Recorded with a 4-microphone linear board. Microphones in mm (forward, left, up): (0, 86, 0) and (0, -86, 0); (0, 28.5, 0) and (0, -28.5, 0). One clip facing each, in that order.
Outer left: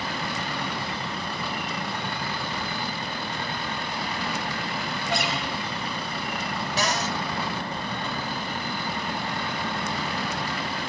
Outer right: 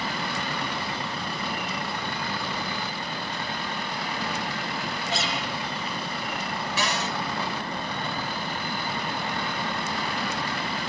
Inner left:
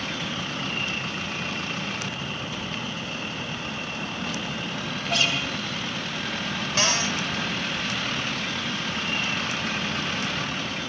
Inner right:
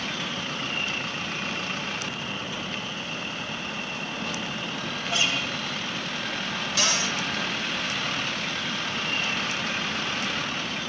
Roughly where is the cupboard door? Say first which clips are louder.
Outer left 3 dB, inner left 2 dB; left.